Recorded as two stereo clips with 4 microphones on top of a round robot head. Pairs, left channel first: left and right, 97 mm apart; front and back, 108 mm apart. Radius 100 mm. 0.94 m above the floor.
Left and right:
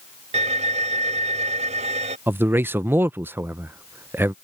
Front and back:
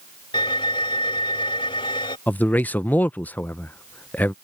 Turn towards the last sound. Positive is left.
turn(degrees=-55)